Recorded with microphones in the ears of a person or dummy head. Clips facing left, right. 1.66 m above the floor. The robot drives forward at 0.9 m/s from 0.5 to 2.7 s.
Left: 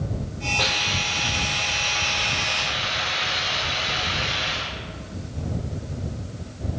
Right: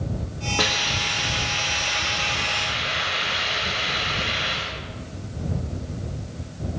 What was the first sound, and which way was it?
A hiss, 65° right (ahead or behind).